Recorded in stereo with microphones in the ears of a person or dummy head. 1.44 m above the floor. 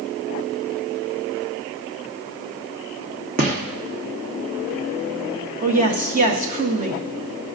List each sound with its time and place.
3.4 s a gunshot: 45° right (ahead or behind), 1.0 m
5.6 s a woman speaking: 40° right (ahead or behind), 0.9 m